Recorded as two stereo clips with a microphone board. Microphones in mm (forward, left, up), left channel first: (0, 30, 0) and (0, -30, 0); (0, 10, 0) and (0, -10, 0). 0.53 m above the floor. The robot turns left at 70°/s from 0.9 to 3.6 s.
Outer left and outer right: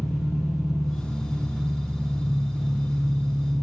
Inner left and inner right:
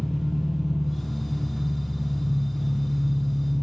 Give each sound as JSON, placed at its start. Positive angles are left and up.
{"t": 0.0, "sound": "an engine running", "azimuth_deg": -170, "distance_m": 1.8}